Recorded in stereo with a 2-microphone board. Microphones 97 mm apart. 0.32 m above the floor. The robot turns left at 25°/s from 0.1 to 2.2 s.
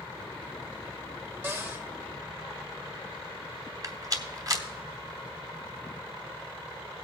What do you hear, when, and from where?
1.4 s a cupboard door: 25° right (ahead or behind), 1.5 m; by 1.9 s 20° right (ahead or behind), 1.5 m
3.8 s a rattle: 40° right (ahead or behind), 1.0 m